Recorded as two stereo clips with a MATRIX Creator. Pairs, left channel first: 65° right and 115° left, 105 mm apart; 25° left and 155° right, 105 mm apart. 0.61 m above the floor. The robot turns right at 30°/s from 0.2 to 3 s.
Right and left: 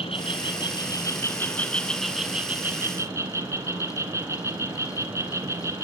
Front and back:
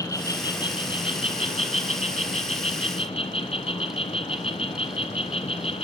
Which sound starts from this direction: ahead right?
An insect, at 0.0 s.